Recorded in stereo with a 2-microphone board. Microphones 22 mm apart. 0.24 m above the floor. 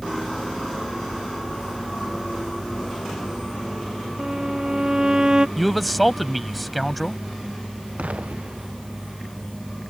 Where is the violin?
30° right (ahead or behind).